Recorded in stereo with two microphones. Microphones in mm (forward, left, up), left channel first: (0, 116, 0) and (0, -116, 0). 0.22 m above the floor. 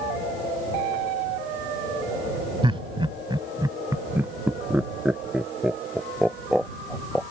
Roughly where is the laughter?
Right.